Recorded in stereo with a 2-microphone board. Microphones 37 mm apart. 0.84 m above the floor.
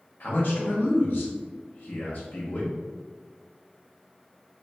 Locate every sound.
0.2 s a man speaking: 65° left (ahead or behind), 0.9 m